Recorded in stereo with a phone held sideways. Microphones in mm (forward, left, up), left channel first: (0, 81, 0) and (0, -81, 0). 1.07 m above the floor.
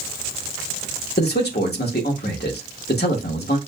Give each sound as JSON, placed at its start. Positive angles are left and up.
{"t": 1.2, "sound": "a man speaking", "side_deg": 85, "distance_m": 1.2}